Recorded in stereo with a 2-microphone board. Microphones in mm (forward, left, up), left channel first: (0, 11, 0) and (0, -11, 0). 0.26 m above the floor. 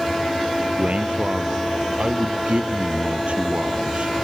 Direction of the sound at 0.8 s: 70° right (ahead or behind).